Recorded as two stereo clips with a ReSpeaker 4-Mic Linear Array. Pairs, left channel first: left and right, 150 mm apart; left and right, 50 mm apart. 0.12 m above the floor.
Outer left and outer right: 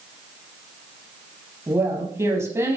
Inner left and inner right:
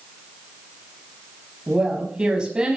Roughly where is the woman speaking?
Centre.